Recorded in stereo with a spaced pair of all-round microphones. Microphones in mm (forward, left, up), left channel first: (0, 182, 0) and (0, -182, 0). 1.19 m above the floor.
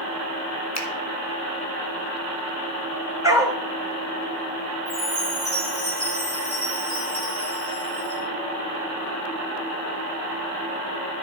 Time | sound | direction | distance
0.8 | a finger snap | 45° left (ahead or behind) | 1.3 m
3.2 | a dog barking | 10° right (ahead or behind) | 1.9 m
4.8 | a chime | 70° left (ahead or behind) | 6.5 m